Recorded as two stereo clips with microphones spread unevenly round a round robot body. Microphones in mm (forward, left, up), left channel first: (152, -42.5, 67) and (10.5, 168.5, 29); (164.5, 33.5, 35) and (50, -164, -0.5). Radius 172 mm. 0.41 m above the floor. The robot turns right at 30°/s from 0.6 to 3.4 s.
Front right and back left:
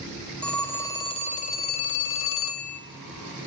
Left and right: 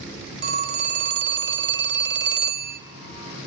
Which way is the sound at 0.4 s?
145° right.